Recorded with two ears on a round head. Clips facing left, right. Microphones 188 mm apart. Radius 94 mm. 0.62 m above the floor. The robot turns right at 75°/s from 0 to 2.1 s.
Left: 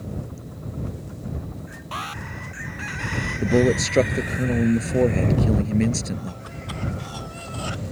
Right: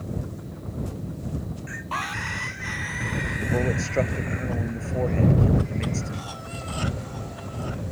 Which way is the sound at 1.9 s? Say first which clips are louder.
Right 1 dB; 15° left (ahead or behind).